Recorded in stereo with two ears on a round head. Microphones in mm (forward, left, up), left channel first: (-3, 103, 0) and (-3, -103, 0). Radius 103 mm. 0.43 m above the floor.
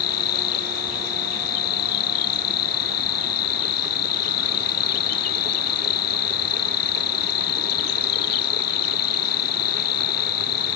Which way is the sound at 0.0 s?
80° left.